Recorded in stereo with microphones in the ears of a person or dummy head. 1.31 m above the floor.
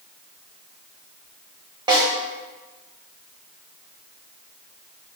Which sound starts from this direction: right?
A snare drum, at 1.9 s.